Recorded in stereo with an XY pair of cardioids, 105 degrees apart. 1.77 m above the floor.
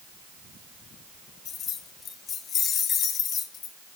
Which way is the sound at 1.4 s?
60° left.